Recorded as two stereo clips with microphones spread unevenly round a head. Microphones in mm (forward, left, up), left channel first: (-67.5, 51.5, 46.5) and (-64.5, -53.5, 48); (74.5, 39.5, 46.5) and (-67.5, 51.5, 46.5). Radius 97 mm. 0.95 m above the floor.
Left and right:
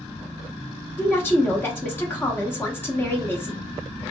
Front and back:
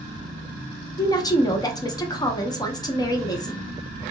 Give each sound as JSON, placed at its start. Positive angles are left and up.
{"t": 1.0, "sound": "a woman speaking", "azimuth_deg": 35, "distance_m": 0.8}